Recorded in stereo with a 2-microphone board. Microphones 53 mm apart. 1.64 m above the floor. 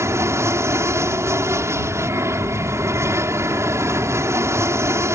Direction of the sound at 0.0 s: 60° right (ahead or behind).